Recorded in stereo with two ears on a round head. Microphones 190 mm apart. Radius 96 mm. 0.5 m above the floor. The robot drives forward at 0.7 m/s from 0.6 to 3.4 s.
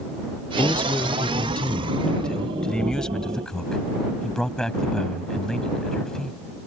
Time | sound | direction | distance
0.6 | a man speaking | 5° left (ahead or behind) | ?